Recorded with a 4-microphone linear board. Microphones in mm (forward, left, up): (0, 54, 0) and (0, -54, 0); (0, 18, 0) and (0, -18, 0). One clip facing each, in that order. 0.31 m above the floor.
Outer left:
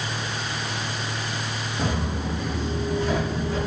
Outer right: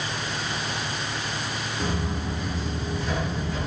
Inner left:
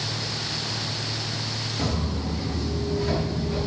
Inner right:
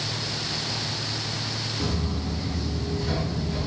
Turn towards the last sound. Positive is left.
turn(degrees=35)  # may be behind; listen again after turning